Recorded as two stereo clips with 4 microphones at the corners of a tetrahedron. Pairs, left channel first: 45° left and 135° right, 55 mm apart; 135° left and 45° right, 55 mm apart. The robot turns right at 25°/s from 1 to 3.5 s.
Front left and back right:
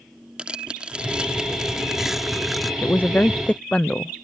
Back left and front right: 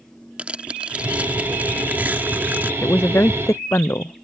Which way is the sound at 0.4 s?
85° right.